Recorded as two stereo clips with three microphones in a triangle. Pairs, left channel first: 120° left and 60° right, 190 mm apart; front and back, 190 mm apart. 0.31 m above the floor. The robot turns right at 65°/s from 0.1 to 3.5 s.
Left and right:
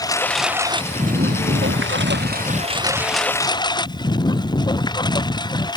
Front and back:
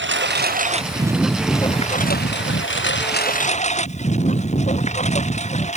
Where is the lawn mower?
170° right; by 5.8 s 50° left.